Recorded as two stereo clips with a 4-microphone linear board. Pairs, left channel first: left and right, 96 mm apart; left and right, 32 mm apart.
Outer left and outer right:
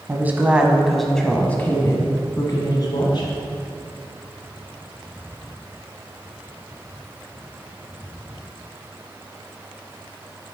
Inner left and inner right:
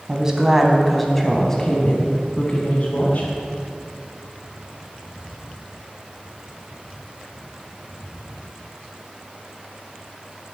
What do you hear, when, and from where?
0.1 s a woman speaking: 20° right (ahead or behind), 1.2 m; by 3.3 s 50° left (ahead or behind), 1.5 m